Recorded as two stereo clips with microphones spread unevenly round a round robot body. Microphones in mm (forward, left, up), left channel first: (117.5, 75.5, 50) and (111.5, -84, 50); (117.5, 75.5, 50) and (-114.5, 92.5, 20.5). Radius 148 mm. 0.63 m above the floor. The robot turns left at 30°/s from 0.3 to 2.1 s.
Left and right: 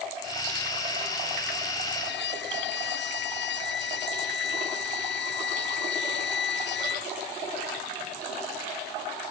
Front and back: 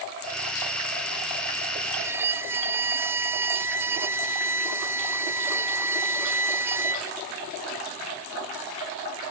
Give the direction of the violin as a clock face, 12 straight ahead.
9 o'clock.